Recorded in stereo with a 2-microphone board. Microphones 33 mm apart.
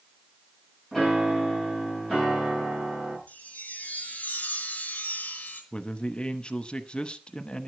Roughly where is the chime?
Left.